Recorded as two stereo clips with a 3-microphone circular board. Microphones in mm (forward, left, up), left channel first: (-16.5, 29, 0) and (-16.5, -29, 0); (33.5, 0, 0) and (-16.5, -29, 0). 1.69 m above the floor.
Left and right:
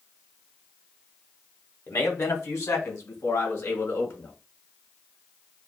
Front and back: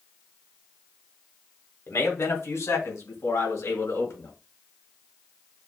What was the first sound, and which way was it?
A man speaking, 65° left.